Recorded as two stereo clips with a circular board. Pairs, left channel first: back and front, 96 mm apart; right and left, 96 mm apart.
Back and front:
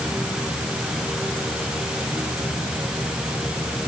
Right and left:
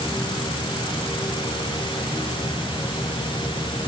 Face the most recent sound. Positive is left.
No sound to turn to.